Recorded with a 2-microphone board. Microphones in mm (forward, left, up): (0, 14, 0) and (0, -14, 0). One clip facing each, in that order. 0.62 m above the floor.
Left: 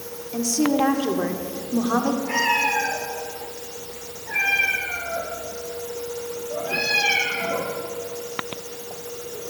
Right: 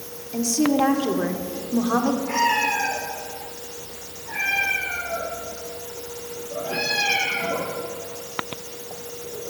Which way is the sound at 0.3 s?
5° left (ahead or behind).